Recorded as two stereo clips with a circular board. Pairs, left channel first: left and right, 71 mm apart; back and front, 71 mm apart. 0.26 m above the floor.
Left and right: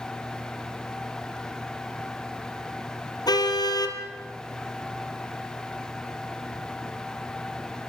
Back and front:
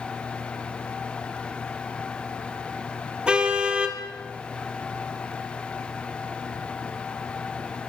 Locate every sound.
3.3 s a car horn: 75° left, 2.5 m